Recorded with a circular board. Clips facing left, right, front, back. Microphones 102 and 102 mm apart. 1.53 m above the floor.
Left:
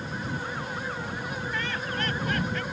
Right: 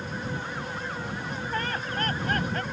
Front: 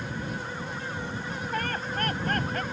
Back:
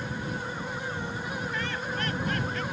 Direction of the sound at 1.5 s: 40° right.